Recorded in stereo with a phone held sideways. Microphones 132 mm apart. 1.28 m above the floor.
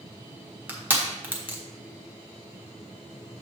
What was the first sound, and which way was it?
Crushing, 15° right (ahead or behind).